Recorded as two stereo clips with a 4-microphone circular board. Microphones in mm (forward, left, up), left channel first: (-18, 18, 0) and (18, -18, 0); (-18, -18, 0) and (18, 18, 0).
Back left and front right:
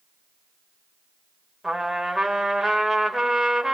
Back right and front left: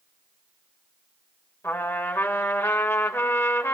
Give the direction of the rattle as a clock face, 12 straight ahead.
No rattle in this recording.